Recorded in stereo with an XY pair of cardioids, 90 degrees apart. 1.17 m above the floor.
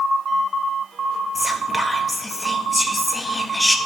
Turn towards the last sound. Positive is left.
turn(degrees=10)